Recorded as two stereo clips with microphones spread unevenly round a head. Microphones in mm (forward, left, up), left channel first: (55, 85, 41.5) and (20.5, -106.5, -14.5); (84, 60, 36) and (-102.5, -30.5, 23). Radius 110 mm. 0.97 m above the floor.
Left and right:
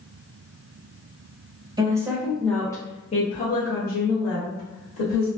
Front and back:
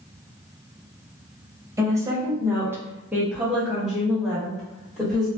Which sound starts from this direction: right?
A woman speaking, at 1.8 s.